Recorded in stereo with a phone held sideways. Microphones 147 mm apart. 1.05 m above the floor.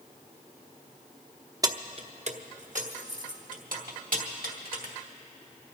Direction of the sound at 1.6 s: 25° right (ahead or behind).